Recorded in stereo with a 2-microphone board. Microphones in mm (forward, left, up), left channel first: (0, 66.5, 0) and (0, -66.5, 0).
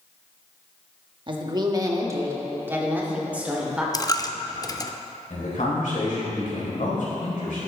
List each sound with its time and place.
1.3 s a woman speaking: 40° right (ahead or behind), 1.1 m; by 3.8 s 10° right (ahead or behind), 2.5 m
3.9 s a dropped coin: 30° left (ahead or behind), 0.5 m
5.3 s a man speaking: 80° left, 3 m